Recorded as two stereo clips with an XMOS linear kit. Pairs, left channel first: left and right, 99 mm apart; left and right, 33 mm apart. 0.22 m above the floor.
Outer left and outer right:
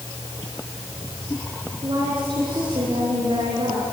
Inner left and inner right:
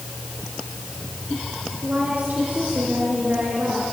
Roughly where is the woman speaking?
Right.